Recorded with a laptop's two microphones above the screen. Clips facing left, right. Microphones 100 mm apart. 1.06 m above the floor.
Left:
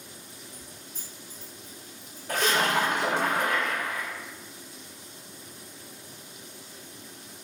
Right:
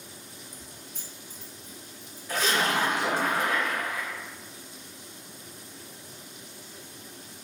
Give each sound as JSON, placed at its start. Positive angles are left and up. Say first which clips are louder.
{"t": 0.5, "sound": "keys jangling", "louder": "even", "side_deg": -75, "distance_m": 1.0}
{"t": 2.3, "sound": "a splash", "louder": "left 1 dB", "side_deg": 55, "distance_m": 1.3}